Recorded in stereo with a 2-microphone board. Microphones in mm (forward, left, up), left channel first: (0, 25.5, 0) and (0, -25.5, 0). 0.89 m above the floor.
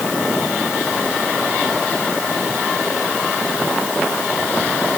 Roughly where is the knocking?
No knocking in this recording.